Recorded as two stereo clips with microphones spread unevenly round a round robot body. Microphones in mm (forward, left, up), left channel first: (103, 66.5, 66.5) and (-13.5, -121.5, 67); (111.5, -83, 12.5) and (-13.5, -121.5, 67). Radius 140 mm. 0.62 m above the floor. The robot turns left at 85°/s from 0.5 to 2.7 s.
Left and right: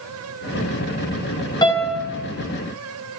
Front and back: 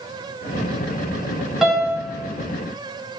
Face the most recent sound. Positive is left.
turn(degrees=-65)